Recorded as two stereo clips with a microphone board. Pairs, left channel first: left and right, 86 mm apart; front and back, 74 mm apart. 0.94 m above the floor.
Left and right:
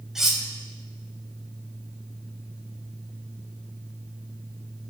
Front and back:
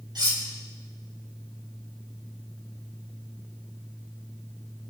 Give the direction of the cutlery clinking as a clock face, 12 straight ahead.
6 o'clock.